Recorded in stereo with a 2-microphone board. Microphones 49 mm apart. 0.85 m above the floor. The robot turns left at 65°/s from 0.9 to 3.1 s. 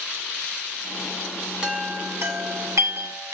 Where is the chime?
15° right (ahead or behind), 3 m; by 3.4 s 65° right (ahead or behind), 3 m.